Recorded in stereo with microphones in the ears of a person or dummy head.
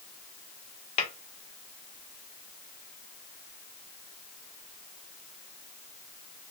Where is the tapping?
35° left (ahead or behind), 1.4 m.